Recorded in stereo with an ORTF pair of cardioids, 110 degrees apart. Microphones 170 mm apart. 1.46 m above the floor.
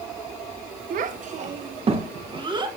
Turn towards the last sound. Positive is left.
turn(degrees=-25)